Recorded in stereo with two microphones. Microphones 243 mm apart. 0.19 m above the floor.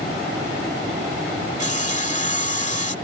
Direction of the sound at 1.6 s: 30° left (ahead or behind).